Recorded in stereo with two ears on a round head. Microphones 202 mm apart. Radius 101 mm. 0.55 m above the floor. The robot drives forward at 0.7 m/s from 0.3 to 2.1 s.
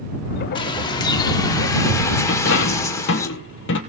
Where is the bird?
20° left (ahead or behind), 1.3 m; by 3.3 s 15° left (ahead or behind), 1.9 m.